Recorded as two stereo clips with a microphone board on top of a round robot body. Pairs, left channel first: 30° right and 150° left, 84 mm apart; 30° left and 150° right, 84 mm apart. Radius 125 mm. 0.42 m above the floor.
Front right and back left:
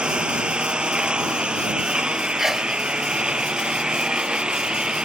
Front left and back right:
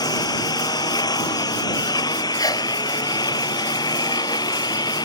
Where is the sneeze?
65° left.